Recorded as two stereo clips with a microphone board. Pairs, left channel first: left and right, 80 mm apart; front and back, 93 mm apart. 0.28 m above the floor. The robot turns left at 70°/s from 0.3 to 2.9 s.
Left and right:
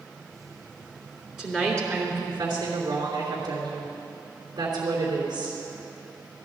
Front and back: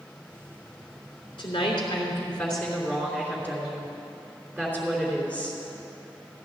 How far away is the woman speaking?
About 3 m.